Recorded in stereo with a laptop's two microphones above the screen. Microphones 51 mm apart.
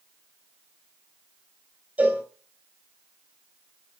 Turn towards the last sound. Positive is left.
turn(degrees=-25)  # may be behind; listen again after turning